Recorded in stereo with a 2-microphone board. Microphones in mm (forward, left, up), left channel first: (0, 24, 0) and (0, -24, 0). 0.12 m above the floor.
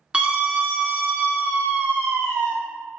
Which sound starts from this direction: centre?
A scream, at 0.1 s.